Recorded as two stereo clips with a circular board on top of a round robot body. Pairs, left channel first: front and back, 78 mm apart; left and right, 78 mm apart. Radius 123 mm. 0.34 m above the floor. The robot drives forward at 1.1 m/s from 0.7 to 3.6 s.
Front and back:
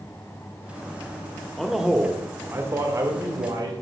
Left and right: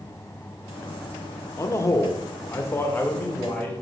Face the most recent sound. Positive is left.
turn(degrees=155)